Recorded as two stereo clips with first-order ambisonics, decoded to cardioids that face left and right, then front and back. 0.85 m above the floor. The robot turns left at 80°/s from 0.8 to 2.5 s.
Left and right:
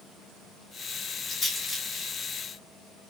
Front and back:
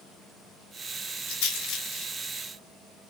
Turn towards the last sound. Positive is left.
turn(degrees=-75)